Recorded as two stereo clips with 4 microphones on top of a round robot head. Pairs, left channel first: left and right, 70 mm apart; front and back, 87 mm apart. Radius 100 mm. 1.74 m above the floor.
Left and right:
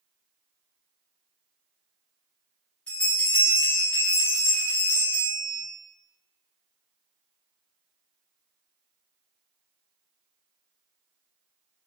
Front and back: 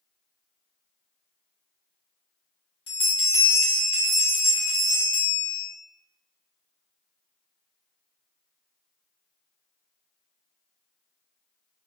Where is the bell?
15° left, 1.1 m.